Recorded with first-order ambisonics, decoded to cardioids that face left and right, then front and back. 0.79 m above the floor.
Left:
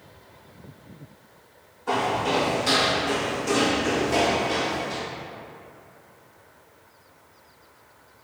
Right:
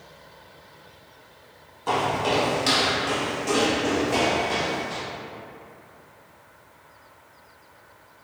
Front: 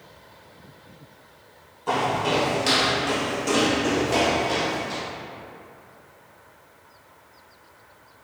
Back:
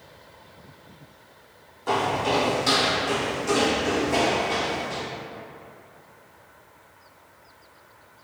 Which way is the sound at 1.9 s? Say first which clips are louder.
Right 1 dB, even; 95° right.